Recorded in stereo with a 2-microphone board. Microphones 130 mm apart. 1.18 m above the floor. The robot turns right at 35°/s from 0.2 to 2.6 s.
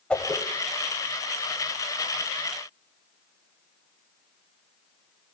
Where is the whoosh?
10° left (ahead or behind), 1.4 m; by 0.4 s 15° left (ahead or behind), 1.4 m.